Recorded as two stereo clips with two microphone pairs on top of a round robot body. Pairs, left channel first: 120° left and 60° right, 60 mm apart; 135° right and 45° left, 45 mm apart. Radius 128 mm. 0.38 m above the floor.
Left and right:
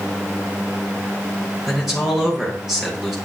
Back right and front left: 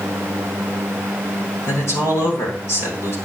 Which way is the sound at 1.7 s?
145° right.